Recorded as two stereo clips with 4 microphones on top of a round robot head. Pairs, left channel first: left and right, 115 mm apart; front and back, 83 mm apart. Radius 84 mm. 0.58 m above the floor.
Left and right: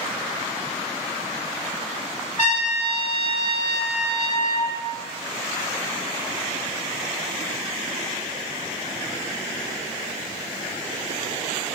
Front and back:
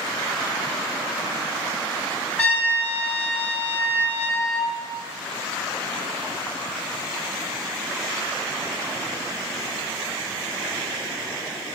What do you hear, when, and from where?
2.4 s a trumpet: 70° left, 3 m